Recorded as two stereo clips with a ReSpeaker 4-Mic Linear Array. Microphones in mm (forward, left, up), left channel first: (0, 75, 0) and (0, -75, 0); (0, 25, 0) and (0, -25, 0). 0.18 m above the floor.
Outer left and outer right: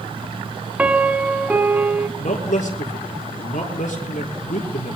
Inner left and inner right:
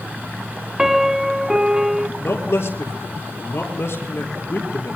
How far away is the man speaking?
About 4.5 m.